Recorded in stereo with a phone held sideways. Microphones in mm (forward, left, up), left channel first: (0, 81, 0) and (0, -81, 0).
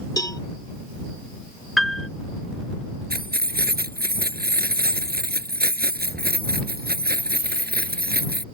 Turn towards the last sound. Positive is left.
turn(degrees=-70)  # may be behind; listen again after turning